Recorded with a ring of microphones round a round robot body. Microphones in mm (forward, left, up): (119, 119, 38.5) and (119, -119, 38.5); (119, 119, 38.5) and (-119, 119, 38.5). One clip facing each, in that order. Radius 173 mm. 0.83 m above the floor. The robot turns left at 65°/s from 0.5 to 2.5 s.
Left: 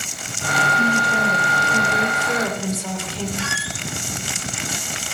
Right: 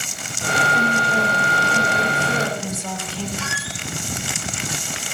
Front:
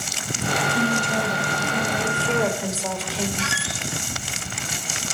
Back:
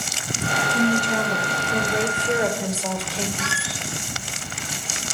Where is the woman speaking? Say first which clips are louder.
Left 2 dB, back 5 dB; 155° right, 3 m; by 3.3 s 90° left, 3 m.